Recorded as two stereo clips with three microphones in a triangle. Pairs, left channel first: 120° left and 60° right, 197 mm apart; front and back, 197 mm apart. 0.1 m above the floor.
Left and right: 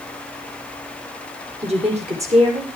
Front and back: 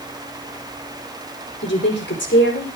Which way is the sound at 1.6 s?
5° right.